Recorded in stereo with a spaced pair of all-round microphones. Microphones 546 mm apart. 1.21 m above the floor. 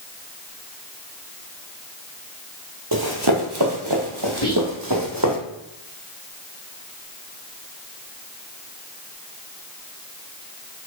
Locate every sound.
2.9 s running footsteps: 40° right (ahead or behind), 1.7 m; by 5.4 s 35° right (ahead or behind), 2.5 m
4.4 s whispering: 45° left (ahead or behind), 1.4 m